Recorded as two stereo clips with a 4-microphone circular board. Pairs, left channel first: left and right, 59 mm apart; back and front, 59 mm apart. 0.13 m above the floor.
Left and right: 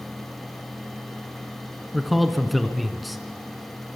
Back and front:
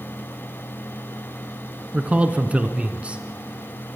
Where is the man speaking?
5° right, 1.2 m.